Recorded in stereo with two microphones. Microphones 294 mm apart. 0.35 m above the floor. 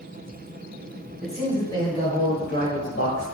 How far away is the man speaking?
About 1.6 m.